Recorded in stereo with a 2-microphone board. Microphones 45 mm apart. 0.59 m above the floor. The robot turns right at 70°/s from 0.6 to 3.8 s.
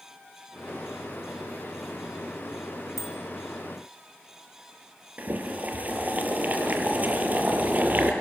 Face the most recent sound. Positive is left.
turn(degrees=-35)  # may be behind; listen again after turning